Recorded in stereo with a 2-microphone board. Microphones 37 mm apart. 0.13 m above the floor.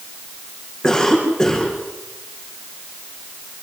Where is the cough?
15° left (ahead or behind), 8.5 m.